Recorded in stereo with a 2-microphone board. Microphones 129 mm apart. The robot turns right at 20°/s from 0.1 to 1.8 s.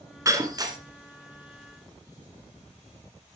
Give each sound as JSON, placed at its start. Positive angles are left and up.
{"t": 0.2, "sound": "breaking glass", "side_deg": -25, "distance_m": 2.0}